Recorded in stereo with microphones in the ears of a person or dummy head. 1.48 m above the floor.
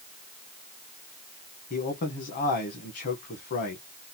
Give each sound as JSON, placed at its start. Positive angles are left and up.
{"t": 1.7, "sound": "a man speaking", "side_deg": 50, "distance_m": 1.0}